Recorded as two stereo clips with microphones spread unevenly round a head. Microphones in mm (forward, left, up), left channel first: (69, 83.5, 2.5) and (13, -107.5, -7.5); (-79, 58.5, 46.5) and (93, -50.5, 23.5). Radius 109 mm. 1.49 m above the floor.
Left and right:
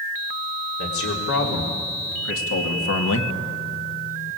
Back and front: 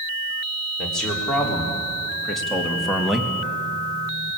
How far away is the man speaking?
About 4.5 m.